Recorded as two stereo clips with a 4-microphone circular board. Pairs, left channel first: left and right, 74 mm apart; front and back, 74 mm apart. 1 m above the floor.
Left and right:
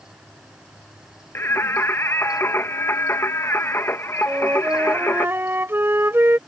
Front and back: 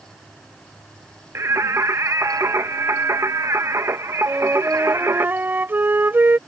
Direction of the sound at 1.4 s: 140° left.